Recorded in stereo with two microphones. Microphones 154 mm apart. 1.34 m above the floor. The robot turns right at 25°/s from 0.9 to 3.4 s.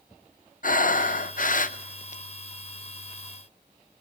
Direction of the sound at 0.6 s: 85° left.